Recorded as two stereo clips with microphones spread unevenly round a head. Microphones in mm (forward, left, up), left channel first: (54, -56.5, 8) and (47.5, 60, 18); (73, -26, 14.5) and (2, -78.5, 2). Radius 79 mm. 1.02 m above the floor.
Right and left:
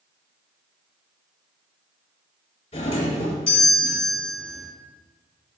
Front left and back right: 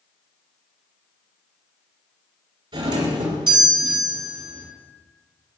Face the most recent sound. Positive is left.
turn(degrees=-135)